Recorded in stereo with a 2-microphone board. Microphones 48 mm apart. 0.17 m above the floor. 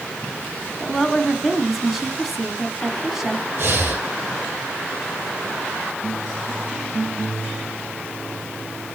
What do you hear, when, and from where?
0.8 s a woman speaking: 5° right (ahead or behind), 1.3 m
3.6 s breathing: 45° right (ahead or behind), 2.5 m